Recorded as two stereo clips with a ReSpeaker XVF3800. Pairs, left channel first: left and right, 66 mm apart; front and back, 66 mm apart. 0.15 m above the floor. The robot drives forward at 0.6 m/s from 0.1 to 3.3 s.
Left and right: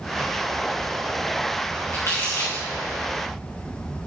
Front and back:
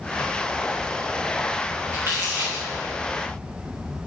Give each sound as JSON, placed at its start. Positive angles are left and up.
{"t": 1.9, "sound": "crumpling", "azimuth_deg": 125, "distance_m": 3.5}